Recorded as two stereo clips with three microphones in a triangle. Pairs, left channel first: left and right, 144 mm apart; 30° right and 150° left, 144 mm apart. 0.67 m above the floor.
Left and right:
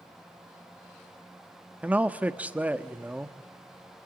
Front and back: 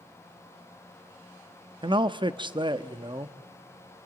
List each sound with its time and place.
1.8 s a man speaking: 165° right, 0.7 m